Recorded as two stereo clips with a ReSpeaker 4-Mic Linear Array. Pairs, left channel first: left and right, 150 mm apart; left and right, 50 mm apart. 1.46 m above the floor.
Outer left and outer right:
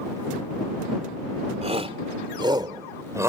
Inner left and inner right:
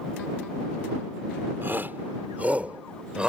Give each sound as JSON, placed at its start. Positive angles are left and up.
{"t": 1.6, "sound": "a shout", "side_deg": -45}